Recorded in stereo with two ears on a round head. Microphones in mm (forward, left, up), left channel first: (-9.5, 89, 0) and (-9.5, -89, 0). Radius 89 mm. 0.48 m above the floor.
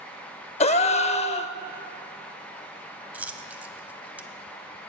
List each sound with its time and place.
0.6 s a gasp: 35° left (ahead or behind), 0.5 m
3.1 s a dropped coin: 10° right (ahead or behind), 0.9 m